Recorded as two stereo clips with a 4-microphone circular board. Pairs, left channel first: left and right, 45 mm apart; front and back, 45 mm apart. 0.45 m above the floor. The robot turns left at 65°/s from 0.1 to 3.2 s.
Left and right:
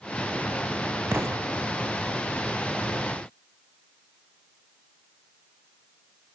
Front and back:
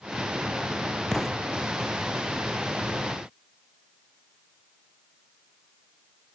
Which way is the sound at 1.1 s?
80° right.